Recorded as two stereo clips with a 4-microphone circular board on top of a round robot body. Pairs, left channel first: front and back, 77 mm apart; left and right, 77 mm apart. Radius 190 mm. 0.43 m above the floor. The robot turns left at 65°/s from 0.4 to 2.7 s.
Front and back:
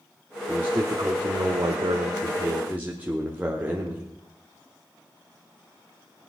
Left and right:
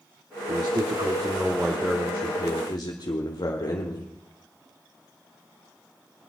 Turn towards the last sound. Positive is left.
turn(degrees=115)